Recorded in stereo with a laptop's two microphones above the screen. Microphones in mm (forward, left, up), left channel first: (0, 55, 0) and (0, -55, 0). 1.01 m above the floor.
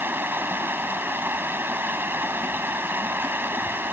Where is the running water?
20° right (ahead or behind).